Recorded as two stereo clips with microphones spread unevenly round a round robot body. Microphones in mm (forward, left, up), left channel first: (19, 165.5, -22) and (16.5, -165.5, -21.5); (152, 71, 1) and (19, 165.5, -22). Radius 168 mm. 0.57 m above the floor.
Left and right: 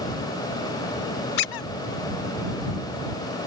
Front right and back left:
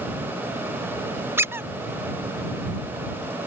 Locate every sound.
1.4 s a squeak: 70° left